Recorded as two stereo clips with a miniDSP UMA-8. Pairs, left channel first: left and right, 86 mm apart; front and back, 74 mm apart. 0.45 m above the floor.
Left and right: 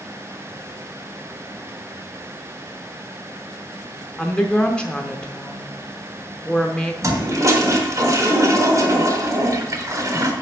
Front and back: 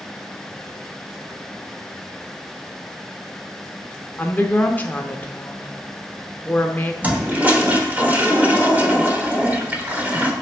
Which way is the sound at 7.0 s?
120° right.